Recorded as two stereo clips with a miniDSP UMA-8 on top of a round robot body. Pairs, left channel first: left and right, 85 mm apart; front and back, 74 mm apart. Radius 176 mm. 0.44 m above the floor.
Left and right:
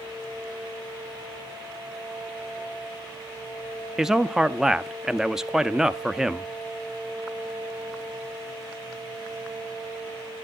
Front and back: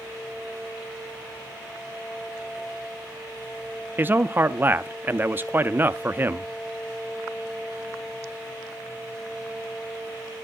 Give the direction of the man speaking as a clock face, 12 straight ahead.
6 o'clock.